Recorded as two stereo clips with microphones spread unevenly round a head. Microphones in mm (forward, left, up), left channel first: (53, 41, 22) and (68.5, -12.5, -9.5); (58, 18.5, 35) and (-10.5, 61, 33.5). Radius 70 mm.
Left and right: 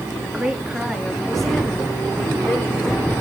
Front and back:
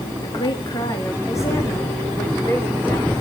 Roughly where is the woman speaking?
Ahead.